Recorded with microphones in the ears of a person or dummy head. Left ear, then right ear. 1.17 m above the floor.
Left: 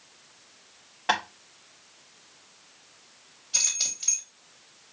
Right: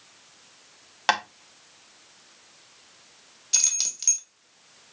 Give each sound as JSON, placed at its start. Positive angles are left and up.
{"t": 1.1, "sound": "tapping", "side_deg": -65, "distance_m": 1.1}
{"t": 3.5, "sound": "keys jangling", "side_deg": -70, "distance_m": 1.9}